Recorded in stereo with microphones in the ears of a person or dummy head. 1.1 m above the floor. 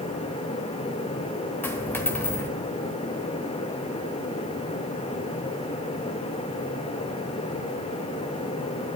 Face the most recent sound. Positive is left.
turn(degrees=10)  # may be behind; listen again after turning